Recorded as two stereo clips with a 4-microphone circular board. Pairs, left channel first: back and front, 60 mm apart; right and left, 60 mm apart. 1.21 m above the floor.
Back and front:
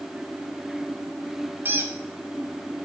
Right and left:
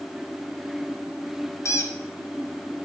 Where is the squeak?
55° right, 0.7 m.